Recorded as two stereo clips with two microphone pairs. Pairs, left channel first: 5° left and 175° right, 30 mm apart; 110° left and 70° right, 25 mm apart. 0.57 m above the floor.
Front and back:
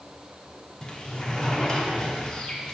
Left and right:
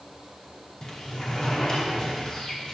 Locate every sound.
0.8 s a sliding door: 60° left, 1.1 m